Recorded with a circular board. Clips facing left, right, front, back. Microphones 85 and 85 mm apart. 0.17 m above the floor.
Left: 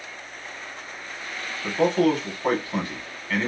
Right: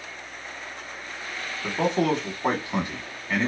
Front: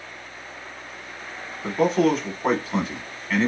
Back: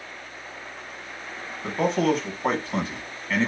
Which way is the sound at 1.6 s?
85° right.